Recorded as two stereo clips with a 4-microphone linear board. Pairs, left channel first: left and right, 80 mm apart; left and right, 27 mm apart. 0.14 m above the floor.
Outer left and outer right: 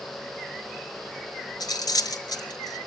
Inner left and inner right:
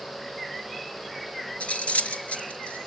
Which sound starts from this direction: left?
Cutlery clinking, at 1.6 s.